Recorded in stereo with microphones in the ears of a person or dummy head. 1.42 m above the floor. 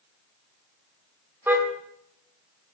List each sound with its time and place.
1.5 s a car horn: 10° right (ahead or behind), 2.5 m